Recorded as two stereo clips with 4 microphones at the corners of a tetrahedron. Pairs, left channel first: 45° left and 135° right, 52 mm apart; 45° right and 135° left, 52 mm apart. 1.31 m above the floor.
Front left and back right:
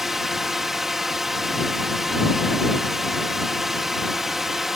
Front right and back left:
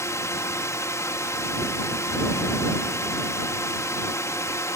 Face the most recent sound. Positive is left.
turn(degrees=-50)